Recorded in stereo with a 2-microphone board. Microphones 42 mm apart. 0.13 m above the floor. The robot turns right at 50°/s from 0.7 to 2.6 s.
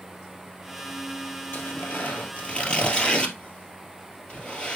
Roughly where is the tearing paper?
Left.